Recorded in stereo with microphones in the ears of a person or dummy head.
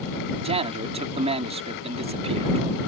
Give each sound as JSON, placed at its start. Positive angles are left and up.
{"t": 0.4, "sound": "a man speaking", "side_deg": -25}